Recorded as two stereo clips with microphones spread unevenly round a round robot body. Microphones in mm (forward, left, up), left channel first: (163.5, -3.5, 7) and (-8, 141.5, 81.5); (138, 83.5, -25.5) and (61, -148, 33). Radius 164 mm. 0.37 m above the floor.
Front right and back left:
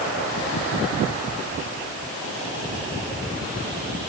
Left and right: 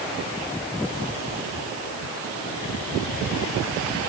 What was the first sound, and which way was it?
Only background noise.